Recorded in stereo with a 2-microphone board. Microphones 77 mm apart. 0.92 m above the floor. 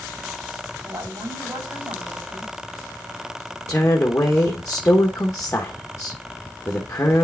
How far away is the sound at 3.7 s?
About 1.2 m.